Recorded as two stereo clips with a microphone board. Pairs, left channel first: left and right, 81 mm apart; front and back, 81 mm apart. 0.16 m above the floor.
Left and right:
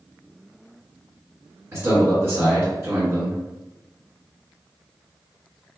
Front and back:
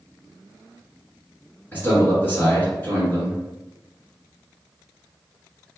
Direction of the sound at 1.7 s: 45° right.